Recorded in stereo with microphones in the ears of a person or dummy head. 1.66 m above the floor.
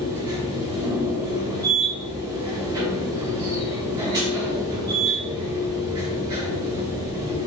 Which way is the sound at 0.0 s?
20° right (ahead or behind).